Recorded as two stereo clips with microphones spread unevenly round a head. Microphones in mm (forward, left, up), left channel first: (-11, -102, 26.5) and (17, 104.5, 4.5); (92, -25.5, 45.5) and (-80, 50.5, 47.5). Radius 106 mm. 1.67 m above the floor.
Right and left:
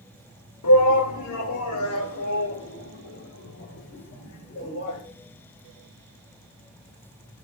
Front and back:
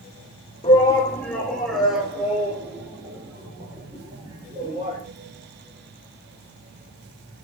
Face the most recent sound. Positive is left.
turn(degrees=-135)